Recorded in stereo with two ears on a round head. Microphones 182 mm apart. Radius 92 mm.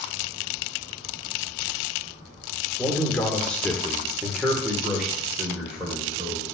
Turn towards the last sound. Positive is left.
turn(degrees=-5)  # may be behind; listen again after turning